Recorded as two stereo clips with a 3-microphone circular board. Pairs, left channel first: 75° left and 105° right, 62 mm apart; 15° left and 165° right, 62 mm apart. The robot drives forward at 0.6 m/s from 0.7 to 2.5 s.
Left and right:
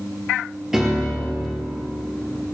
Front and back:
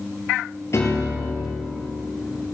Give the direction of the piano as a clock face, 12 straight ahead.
1 o'clock.